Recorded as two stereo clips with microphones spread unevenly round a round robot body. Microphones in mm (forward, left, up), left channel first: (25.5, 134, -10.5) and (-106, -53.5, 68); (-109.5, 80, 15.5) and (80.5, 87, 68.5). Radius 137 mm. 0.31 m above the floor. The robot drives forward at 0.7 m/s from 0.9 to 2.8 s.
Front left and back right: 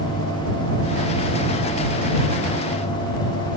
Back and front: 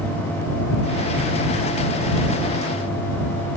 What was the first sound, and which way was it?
Only background noise.